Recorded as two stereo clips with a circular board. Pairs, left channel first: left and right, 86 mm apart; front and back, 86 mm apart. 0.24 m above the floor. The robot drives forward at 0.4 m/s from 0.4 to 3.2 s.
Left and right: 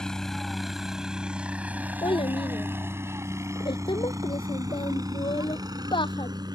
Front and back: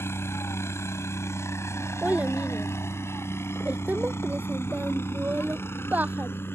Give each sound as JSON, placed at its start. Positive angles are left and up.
{"t": 0.0, "sound": "a helicopter", "azimuth_deg": 15}
{"t": 2.0, "sound": "a child speaking", "azimuth_deg": 105}